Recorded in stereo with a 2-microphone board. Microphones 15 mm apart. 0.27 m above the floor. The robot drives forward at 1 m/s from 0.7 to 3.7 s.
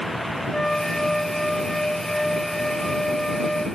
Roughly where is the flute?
Left.